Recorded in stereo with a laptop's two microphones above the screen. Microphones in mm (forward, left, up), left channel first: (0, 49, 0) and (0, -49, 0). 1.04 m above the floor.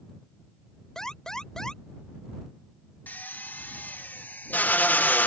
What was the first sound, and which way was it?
An alarm, 5° left (ahead or behind).